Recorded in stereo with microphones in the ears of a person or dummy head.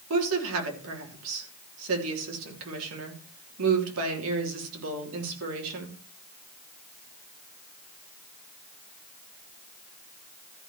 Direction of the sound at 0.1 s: 80° right.